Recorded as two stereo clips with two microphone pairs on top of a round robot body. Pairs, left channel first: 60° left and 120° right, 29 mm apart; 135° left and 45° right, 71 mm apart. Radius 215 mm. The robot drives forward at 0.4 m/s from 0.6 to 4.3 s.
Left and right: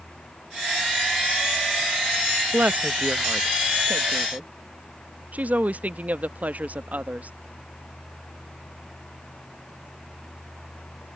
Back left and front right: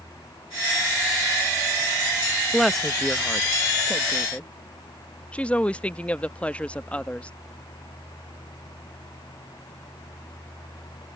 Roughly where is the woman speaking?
Behind right.